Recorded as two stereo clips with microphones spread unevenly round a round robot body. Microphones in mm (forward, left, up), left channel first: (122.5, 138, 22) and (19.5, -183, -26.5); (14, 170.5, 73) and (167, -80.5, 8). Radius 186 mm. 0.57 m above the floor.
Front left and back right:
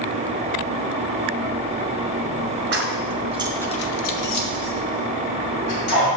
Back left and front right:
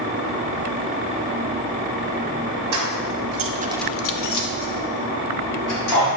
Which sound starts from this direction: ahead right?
Keys jangling, at 2.7 s.